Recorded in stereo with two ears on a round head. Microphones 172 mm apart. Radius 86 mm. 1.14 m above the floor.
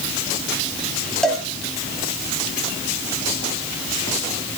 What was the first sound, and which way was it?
A cowbell, 5° left (ahead or behind).